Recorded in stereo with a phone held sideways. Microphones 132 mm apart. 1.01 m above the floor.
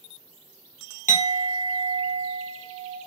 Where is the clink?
80° left, 1.4 m.